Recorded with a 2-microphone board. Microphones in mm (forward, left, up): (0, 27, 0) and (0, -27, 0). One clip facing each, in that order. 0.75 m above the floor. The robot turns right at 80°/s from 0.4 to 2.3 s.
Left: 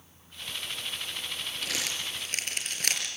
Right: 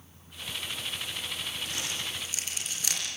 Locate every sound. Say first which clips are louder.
1.6 s crumpling: left 1 dB; 75° left (ahead or behind), 5 m; by 3.1 s 55° left (ahead or behind), 5 m